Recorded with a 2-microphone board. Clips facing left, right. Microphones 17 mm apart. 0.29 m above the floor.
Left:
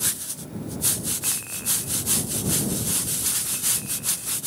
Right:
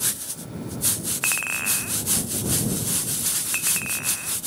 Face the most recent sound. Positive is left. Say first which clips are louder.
# right 6 dB
turn(degrees=-55)  # may be behind; listen again after turning